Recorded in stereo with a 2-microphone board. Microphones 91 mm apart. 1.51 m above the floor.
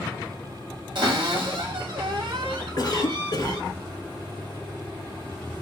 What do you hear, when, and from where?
0.9 s a cupboard door: 55° right (ahead or behind), 2.5 m
2.8 s a cough: 40° left (ahead or behind), 1.0 m